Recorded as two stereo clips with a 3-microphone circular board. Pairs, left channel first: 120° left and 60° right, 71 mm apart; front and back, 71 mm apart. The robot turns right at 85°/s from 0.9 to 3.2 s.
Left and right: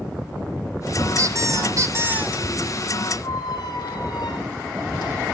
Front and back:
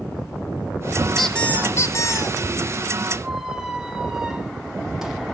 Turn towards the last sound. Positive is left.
turn(degrees=95)